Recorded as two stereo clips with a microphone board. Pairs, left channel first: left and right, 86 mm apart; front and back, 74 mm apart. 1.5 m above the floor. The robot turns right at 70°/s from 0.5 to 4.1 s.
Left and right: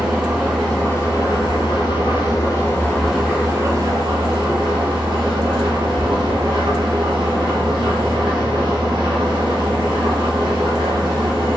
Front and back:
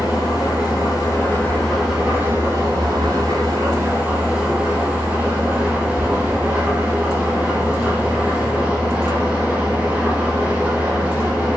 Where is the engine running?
5° right, 4.5 m; by 11.6 s 115° right, 4.5 m.